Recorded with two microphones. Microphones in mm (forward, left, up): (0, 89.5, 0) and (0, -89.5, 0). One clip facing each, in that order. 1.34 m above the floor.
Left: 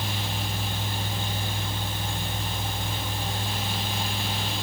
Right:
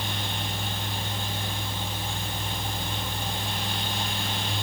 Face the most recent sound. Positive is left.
No sound to turn to.